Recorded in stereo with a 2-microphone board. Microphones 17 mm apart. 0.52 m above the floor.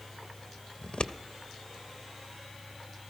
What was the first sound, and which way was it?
Scissors, 75° left (ahead or behind).